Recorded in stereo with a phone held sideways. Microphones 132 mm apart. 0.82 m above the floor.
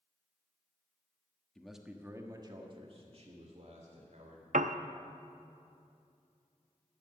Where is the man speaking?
5° left (ahead or behind), 1.3 m; by 4.4 s 65° right (ahead or behind), 3 m.